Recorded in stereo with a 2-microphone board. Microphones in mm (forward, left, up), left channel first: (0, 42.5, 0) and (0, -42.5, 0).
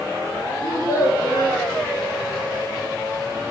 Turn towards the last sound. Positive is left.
turn(degrees=75)  # may be behind; listen again after turning